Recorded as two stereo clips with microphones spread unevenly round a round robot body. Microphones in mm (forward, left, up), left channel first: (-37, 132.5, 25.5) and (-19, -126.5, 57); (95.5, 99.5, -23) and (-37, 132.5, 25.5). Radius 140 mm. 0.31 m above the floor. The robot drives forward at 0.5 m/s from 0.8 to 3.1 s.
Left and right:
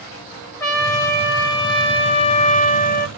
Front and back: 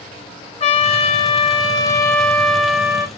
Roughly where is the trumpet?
Ahead.